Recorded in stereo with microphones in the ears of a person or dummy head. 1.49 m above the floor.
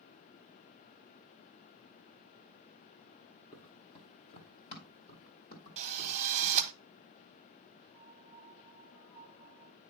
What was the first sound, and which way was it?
Running footsteps, 30° left (ahead or behind).